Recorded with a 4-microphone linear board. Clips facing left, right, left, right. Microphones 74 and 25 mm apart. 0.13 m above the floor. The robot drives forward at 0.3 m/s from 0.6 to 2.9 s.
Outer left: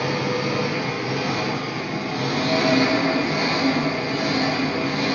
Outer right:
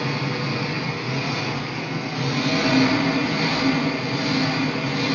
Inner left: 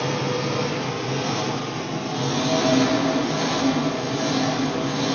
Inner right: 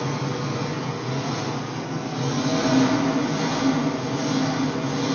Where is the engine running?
65° left (ahead or behind), 1.1 m; by 5.2 s 45° left (ahead or behind), 1.4 m.